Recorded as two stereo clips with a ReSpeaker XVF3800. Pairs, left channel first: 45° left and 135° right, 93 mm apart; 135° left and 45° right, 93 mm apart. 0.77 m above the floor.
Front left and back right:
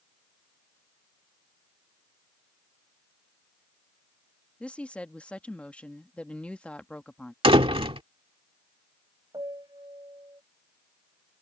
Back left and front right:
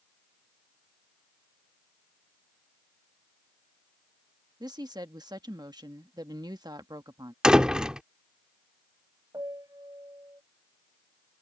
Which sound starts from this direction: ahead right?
A woman speaking, at 4.6 s.